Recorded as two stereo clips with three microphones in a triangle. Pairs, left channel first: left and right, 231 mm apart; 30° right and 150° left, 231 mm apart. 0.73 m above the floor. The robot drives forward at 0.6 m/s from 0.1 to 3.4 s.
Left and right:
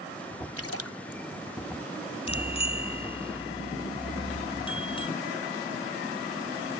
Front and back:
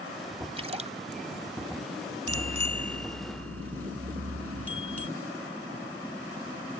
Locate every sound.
0.6 s a splash: 85° left; by 1.2 s 95° left
2.3 s a bicycle bell: 155° left